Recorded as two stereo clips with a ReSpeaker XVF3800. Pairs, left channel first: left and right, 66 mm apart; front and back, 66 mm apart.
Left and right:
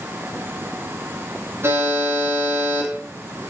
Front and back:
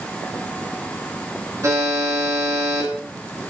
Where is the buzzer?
140° right, 3.5 m.